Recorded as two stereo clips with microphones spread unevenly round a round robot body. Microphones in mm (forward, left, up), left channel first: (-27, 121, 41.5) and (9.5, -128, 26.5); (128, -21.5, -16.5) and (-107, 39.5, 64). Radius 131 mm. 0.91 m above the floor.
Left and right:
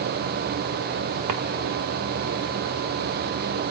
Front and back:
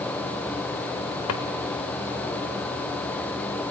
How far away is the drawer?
About 1.6 m.